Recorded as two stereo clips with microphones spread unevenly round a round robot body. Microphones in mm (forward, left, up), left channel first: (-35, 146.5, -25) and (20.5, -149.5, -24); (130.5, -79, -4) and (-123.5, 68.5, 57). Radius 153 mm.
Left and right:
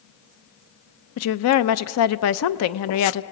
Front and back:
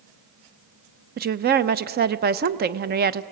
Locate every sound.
1.2 s a woman speaking: 85° left, 0.6 m